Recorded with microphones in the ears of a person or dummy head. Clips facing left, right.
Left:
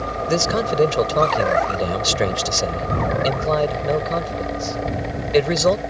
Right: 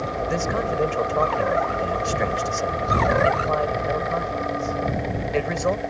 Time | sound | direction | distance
0.3 | a man speaking | 60° left (ahead or behind) | ?